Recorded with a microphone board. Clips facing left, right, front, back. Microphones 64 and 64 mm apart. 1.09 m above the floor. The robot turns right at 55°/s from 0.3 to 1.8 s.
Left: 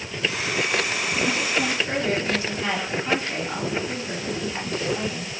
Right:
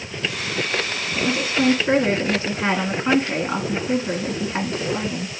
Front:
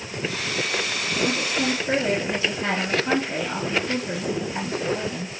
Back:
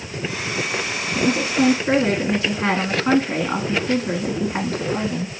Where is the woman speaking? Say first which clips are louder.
Right 4 dB, back 6 dB; 175° right, 2 m; by 5.3 s 140° right, 2 m.